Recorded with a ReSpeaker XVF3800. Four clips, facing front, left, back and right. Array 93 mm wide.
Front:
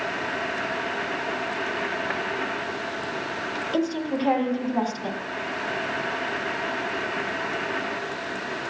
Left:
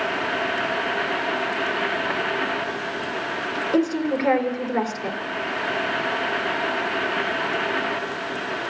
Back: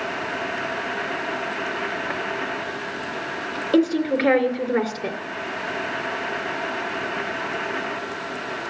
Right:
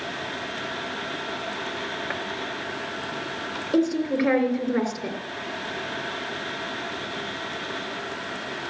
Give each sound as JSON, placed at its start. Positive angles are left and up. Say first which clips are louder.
{"t": 3.7, "sound": "a woman speaking", "louder": "even, back 8 dB", "azimuth_deg": -175, "distance_m": 2.5}